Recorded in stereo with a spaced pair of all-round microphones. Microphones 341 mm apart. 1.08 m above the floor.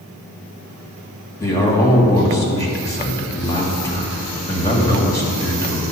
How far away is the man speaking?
About 1.9 m.